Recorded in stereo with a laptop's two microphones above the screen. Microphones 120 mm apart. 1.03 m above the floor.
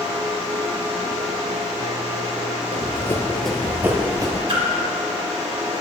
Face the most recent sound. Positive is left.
turn(degrees=-45)  # may be behind; listen again after turning